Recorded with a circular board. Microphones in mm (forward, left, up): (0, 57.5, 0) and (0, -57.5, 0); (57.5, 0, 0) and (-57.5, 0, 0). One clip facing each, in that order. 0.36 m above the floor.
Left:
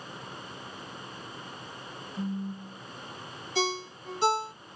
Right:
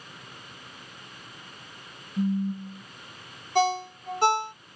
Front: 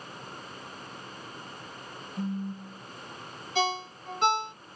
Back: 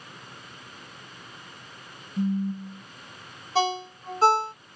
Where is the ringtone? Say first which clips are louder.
Right 7 dB, back 4 dB; 125° right, 0.7 m.